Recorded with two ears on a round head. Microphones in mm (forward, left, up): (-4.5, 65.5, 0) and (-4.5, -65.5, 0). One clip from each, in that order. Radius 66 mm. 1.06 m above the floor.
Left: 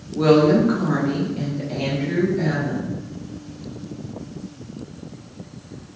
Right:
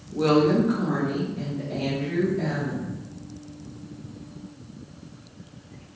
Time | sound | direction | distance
0.1 | a woman speaking | 10° right (ahead or behind) | 0.7 m